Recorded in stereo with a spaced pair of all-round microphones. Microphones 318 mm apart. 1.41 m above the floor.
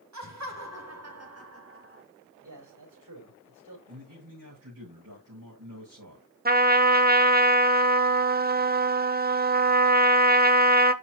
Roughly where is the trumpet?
Right.